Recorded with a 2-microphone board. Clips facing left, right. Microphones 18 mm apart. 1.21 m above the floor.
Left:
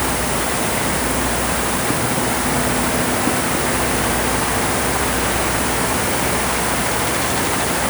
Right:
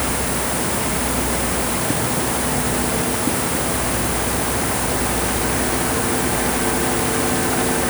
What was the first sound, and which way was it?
Only background noise.